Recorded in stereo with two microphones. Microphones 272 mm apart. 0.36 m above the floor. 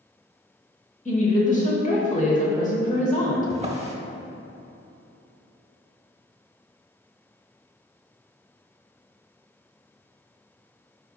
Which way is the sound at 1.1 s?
30° left (ahead or behind).